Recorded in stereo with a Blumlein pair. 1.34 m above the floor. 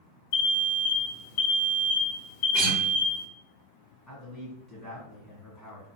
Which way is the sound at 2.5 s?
35° right.